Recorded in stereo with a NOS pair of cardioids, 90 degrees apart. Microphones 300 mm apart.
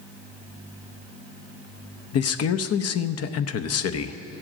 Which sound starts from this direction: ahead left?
A man speaking, at 2.1 s.